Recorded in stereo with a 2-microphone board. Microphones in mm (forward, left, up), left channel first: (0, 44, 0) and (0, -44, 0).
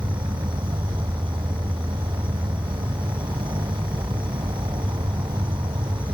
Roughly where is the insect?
Right.